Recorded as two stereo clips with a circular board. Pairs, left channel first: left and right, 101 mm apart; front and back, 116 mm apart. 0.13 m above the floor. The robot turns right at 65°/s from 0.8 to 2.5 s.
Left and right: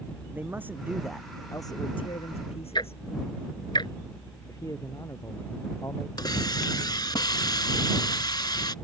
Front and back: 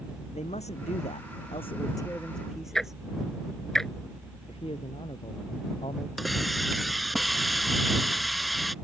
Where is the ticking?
85° left.